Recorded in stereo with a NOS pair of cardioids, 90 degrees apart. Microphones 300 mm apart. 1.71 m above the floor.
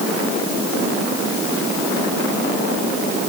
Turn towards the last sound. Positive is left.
No sound to turn to.